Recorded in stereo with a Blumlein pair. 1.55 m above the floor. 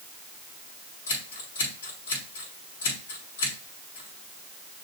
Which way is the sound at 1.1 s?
65° left.